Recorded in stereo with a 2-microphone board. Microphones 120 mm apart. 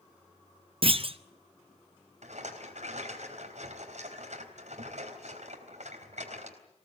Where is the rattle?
75° right (ahead or behind), 4 m.